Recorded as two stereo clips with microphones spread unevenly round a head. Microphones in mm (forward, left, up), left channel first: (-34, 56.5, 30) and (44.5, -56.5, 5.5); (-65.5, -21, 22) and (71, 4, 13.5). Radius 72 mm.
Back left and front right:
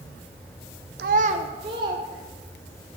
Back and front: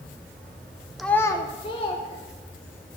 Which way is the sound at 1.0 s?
80° right.